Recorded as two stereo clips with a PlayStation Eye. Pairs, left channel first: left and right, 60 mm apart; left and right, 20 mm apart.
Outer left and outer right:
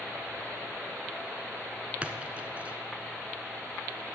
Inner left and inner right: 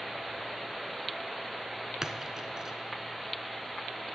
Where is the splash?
25° right (ahead or behind), 0.6 m.